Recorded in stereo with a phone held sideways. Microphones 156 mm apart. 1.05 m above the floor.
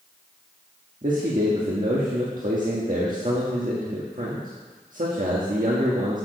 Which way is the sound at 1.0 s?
60° right (ahead or behind).